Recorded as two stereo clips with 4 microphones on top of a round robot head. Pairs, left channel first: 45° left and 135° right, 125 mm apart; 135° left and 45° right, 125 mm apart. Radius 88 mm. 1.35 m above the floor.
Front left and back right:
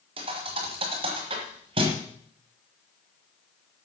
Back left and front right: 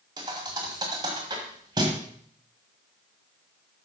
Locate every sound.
0.2 s a thud: 100° right, 1.4 m